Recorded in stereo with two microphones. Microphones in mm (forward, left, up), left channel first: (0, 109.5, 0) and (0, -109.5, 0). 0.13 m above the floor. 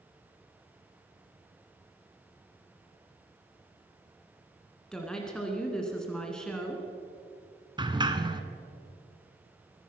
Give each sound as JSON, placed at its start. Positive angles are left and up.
{"t": 4.9, "sound": "a woman speaking", "side_deg": 5, "distance_m": 1.5}
{"t": 7.8, "sound": "a sliding door", "side_deg": -20, "distance_m": 0.9}